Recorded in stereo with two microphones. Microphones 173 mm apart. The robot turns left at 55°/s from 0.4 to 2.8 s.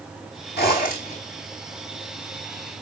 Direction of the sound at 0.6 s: 80° left.